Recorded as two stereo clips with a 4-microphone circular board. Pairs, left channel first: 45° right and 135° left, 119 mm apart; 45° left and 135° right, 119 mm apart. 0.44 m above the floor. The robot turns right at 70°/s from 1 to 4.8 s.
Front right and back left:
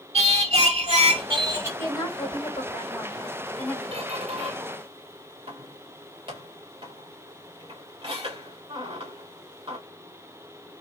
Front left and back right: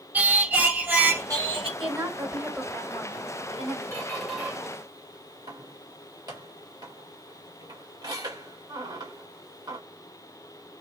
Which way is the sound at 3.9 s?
115° left.